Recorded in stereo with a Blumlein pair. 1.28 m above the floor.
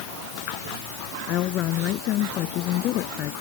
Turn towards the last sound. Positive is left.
turn(degrees=35)